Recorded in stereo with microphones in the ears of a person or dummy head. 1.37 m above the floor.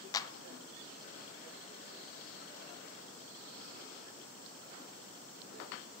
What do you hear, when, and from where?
0.1 s a clap: 20° left (ahead or behind), 0.7 m